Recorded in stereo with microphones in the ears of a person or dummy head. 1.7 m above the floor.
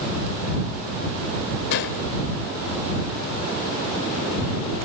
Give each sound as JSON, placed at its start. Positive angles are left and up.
{"t": 1.7, "sound": "a gunshot", "side_deg": 60}